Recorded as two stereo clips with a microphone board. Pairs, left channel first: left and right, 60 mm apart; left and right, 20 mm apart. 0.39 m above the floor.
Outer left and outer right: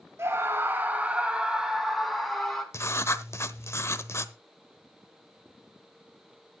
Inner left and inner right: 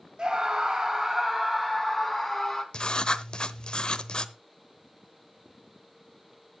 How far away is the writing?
About 0.9 m.